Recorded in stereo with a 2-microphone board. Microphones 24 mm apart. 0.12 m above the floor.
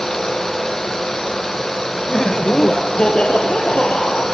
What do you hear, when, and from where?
2.1 s laughter: 30° left (ahead or behind), 1.4 m; by 4.2 s 65° left (ahead or behind), 3.5 m